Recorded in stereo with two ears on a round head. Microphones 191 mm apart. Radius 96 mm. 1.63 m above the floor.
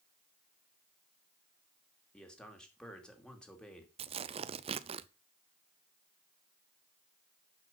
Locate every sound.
2.1 s a man speaking: 5° left (ahead or behind), 2.5 m
4.0 s tearing paper: 30° right (ahead or behind), 0.5 m